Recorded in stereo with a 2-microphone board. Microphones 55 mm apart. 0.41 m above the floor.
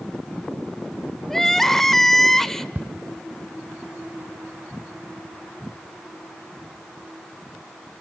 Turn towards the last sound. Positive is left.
turn(degrees=-35)  # may be behind; listen again after turning